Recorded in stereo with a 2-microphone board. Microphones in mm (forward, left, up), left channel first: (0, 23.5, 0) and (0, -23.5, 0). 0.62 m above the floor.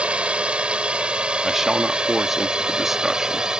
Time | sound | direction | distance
0.0 | a drone | 25° right (ahead or behind) | ?
1.4 | a man speaking | 5° right (ahead or behind) | ?